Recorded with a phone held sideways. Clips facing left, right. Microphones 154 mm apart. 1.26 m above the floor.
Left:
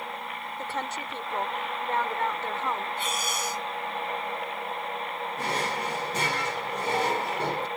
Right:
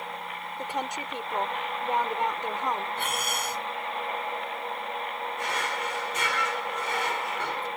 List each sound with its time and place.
0.6 s a woman speaking: 15° right (ahead or behind)
3.0 s breathing: 60° right (ahead or behind)
5.4 s a drawer: 35° left (ahead or behind)